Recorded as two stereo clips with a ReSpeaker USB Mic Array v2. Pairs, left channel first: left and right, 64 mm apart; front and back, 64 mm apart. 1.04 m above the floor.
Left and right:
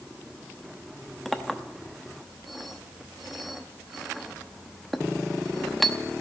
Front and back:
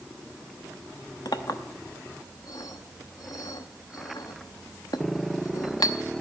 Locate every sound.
1.2 s a clink: straight ahead, 0.8 m